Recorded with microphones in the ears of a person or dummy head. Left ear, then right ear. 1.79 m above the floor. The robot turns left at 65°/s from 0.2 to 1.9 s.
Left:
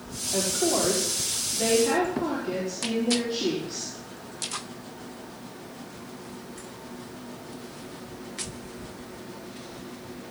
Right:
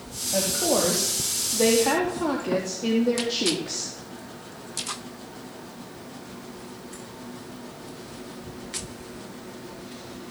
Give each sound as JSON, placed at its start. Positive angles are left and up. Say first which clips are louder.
{"t": 0.3, "sound": "a woman speaking", "louder": "right 2 dB", "azimuth_deg": -20, "distance_m": 4.0}